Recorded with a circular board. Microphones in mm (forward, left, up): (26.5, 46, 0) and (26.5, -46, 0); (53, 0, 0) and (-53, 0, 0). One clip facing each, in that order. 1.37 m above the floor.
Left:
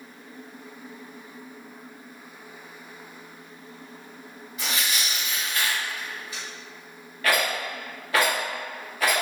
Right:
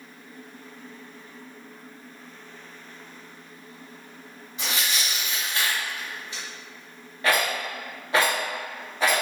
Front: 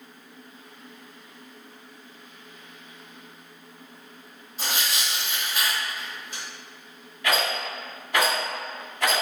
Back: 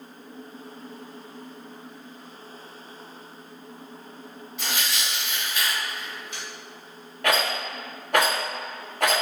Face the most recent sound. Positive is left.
turn(degrees=-155)